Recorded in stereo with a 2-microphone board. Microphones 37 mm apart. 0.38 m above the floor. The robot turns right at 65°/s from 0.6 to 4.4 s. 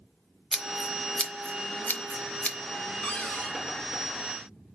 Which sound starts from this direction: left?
A cupboard door, at 3.0 s.